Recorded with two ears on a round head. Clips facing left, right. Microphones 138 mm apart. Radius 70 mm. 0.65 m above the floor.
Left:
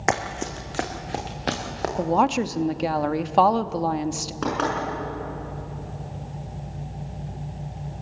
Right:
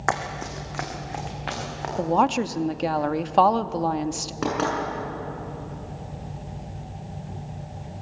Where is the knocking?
5° right (ahead or behind), 6.5 m.